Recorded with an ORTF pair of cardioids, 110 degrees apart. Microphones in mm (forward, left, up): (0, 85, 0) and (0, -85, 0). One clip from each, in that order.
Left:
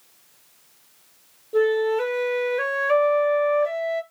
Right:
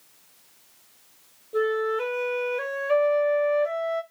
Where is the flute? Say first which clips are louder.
Left 4 dB; 20° left, 0.6 m.